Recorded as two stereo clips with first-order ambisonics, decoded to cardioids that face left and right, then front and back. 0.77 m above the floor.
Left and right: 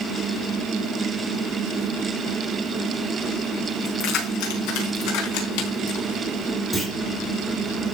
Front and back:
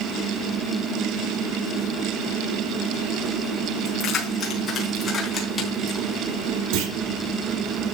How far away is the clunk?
About 3 m.